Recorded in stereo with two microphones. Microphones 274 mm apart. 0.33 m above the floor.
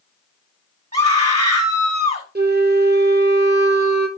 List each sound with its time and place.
0.9 s a scream: 70° right (ahead or behind), 3.5 m
2.4 s a flute: 35° right (ahead or behind), 1.4 m